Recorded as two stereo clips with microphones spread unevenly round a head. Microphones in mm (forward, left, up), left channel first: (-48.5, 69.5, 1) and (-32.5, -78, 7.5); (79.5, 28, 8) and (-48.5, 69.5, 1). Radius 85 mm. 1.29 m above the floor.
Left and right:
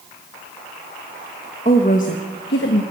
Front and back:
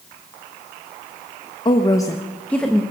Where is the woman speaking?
40° left, 1.3 m; by 2.8 s 70° left, 1.6 m.